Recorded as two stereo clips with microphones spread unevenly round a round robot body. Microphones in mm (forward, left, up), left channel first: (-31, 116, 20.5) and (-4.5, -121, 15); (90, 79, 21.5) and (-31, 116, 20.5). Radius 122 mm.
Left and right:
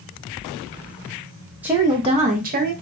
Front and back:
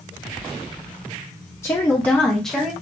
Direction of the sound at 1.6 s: 15° right.